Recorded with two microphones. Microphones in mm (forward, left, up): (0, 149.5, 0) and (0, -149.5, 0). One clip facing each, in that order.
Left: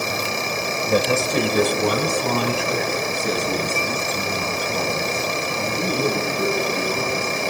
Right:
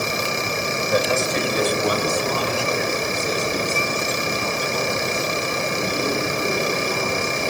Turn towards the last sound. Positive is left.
turn(degrees=70)  # may be behind; listen again after turning